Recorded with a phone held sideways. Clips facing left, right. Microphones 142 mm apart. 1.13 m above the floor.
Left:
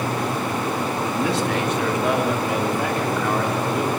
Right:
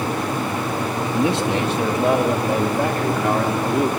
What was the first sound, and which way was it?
A man speaking, 25° right (ahead or behind).